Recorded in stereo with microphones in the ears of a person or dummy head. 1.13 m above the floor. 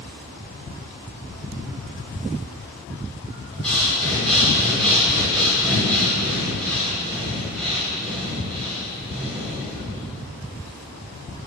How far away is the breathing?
About 4 m.